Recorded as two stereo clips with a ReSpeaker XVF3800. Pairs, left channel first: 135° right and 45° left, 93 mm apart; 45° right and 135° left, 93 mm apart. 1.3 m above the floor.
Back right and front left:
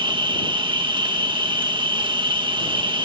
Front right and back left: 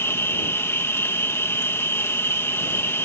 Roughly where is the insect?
Ahead.